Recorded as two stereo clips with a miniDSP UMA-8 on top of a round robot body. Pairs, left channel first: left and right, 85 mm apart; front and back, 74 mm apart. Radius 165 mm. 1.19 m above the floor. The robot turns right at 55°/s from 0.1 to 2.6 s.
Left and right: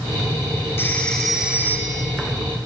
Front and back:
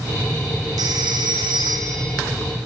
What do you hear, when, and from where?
0.8 s a phone ringing: 150° left, 2.5 m; by 2.1 s 135° right, 2.5 m